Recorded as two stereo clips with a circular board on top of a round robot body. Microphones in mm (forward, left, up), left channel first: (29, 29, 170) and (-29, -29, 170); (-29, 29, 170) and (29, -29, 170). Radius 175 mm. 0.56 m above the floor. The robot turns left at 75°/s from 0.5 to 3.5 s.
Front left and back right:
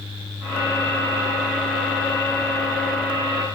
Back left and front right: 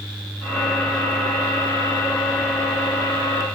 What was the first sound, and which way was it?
Only background noise.